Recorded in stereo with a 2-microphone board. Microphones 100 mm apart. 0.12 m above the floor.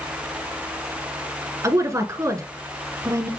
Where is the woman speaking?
30° right (ahead or behind), 1.2 m.